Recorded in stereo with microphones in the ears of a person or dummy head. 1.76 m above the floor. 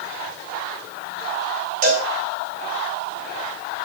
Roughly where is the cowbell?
Right.